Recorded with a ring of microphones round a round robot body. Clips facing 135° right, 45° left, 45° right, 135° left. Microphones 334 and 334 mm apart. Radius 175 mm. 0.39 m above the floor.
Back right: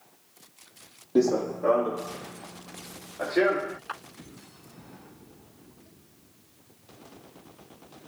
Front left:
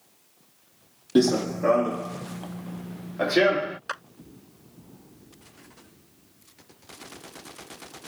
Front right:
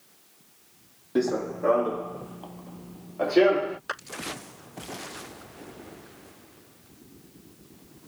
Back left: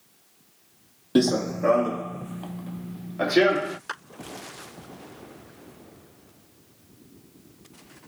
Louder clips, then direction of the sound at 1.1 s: Front left 2 dB, back left 4 dB; 100° left.